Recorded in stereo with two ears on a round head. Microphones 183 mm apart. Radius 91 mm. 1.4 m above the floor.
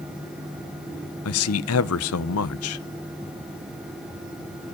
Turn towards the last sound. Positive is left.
turn(degrees=80)